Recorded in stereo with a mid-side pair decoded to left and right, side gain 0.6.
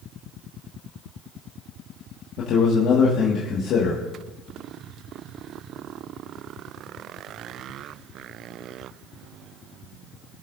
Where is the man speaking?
60° left, 1.9 m.